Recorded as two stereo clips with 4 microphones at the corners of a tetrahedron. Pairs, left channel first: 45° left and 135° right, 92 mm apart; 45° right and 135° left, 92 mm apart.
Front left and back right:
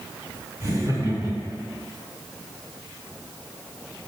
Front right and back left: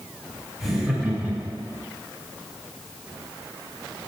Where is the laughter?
135° right, 1.4 m; by 1.8 s 170° left, 1.4 m.